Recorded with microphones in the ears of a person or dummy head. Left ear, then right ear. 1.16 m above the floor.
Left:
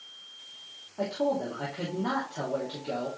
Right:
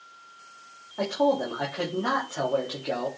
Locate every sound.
1.0 s a man speaking: 60° right (ahead or behind), 2.5 m